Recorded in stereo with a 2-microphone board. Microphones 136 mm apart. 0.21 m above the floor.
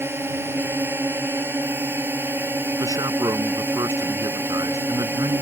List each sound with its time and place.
0.0 s a drone: 15° right (ahead or behind)
2.8 s a man speaking: 30° right (ahead or behind)